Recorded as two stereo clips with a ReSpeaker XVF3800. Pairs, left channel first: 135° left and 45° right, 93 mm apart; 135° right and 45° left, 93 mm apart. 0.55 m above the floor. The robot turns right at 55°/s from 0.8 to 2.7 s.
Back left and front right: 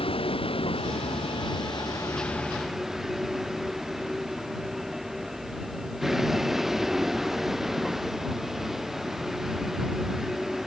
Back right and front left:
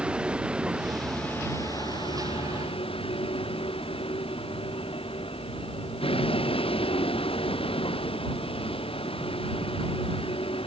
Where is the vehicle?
125° left; by 10.7 s 130° right.